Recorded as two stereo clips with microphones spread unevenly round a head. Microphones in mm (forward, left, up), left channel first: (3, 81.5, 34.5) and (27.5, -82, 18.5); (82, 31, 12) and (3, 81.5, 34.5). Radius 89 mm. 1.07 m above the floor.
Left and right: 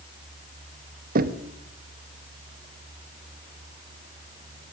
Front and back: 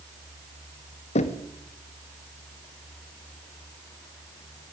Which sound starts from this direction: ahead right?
Knocking, at 1.1 s.